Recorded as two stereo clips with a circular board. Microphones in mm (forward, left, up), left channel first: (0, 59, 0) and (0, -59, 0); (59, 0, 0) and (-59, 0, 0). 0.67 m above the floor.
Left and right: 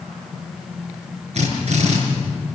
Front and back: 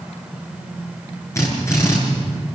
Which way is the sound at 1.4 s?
65° right.